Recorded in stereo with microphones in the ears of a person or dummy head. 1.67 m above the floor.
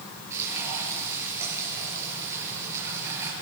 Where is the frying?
15° right (ahead or behind), 7 m.